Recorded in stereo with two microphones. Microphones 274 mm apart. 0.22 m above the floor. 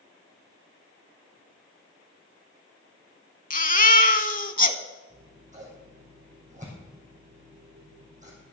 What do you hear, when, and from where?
3.5 s a baby crying: 30° left (ahead or behind), 0.6 m
5.1 s scissors: 25° right (ahead or behind), 4 m